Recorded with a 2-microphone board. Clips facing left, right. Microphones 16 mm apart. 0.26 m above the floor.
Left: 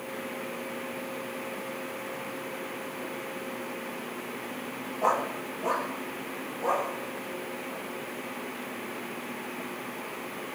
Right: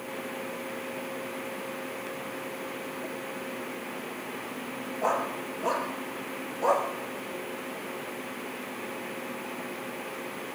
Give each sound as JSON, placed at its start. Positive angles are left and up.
{"t": 5.0, "sound": "a dog barking", "side_deg": 5, "distance_m": 2.0}